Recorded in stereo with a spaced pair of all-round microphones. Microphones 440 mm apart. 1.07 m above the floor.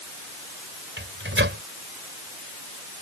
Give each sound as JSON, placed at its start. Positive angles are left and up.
{"t": 1.0, "sound": "a microwave", "side_deg": -25}